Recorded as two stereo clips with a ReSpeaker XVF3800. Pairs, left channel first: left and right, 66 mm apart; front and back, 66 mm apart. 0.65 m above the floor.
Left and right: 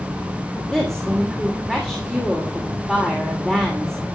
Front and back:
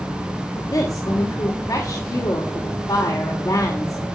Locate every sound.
0.6 s a woman speaking: 5° left, 2.5 m